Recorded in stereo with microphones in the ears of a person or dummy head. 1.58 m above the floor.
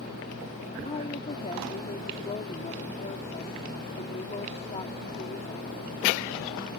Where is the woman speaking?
30° left (ahead or behind).